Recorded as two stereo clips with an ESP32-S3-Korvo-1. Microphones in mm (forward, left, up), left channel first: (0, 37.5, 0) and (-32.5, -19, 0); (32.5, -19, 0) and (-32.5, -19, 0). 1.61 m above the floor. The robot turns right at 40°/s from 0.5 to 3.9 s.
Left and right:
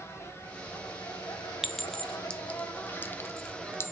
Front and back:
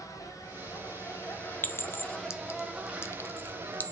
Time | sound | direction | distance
0.0 | an insect | 15° left | 2.5 m
1.6 | a clink | 35° right | 0.6 m